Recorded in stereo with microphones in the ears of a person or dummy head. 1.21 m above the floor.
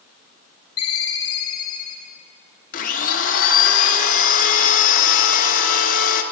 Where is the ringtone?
25° left (ahead or behind), 1.2 m.